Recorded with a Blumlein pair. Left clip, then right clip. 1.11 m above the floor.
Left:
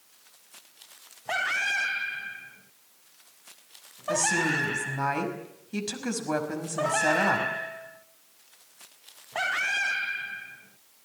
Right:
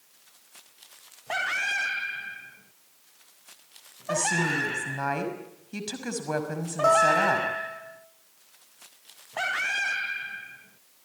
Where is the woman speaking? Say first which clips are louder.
Left 1 dB; straight ahead, 5.5 m.